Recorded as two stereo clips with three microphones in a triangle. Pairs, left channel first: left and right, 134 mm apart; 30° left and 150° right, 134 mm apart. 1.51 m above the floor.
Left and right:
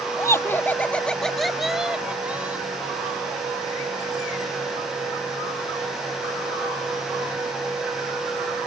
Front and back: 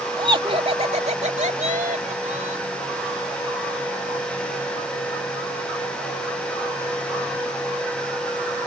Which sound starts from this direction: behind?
Laughter, at 0.2 s.